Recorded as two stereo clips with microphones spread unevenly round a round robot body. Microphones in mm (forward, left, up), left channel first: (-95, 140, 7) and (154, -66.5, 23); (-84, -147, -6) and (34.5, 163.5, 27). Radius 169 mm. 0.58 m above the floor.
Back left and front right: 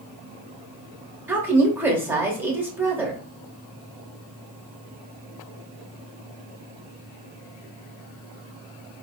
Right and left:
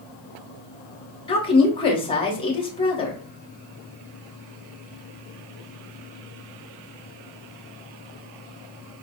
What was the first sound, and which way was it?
A woman speaking, 120° right.